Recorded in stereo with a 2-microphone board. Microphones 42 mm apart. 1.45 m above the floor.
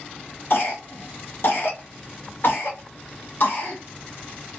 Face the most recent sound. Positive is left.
turn(degrees=55)  # may be behind; listen again after turning